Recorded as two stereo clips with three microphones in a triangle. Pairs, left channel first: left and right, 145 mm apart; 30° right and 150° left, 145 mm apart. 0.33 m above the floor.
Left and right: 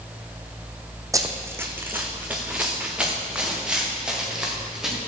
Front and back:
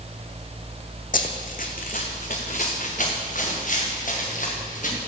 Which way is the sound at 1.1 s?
25° right.